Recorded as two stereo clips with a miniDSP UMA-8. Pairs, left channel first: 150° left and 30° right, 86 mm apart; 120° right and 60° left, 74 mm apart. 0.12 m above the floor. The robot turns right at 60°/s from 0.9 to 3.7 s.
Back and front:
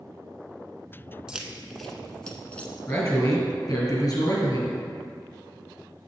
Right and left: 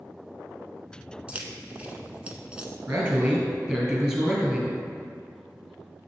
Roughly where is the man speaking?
Left.